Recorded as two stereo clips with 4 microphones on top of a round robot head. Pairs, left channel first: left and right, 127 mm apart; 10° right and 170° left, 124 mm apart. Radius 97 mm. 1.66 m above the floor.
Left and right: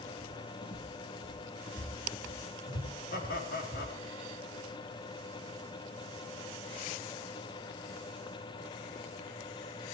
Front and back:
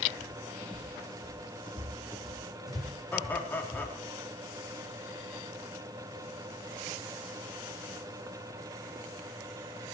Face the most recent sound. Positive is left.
turn(degrees=70)